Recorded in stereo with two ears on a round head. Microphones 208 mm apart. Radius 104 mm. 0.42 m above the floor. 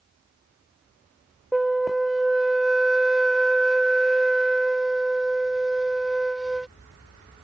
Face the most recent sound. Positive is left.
turn(degrees=0)  # may be behind; listen again after turning